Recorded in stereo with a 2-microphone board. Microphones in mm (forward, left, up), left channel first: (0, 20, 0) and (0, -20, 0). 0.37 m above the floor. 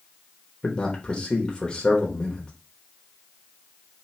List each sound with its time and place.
0.6 s a man speaking: 25° left (ahead or behind), 1.0 m